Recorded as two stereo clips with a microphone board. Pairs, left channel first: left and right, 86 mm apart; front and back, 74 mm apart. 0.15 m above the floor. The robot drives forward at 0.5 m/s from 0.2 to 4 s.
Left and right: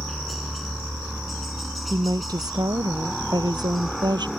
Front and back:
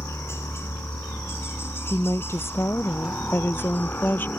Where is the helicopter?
Straight ahead.